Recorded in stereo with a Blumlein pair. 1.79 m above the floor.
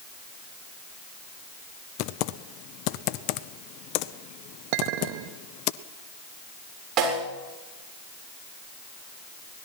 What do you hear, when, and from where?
2.0 s typing on a keyboard: 40° left, 0.8 m
4.7 s a clink: 45° right, 2 m
7.0 s a snare drum: 35° right, 7.5 m